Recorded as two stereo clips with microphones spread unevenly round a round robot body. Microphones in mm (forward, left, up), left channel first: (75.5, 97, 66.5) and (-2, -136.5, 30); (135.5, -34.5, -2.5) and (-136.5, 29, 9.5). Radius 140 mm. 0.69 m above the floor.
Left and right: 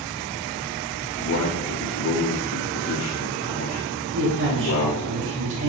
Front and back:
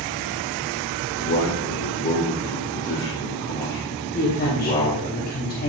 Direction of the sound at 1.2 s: 35° left.